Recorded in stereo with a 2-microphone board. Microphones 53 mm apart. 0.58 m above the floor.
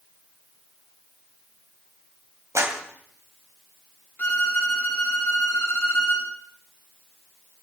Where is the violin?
35° left (ahead or behind), 3.5 m.